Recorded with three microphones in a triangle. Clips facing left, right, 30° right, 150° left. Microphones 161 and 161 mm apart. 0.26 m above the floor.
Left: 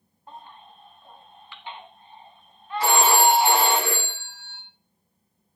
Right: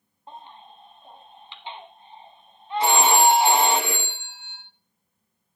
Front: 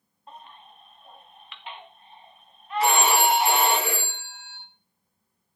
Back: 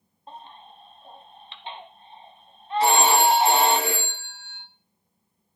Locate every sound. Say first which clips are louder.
0.3 s a baby crying: right 1 dB, back 3 dB; 155° right, 1.1 m
2.8 s a phone ringing: right 1 dB, back 2 dB; 155° right, 7 m